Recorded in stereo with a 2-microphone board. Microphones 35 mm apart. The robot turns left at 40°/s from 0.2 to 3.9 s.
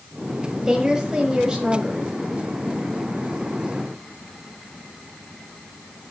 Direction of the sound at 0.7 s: 15° right (ahead or behind).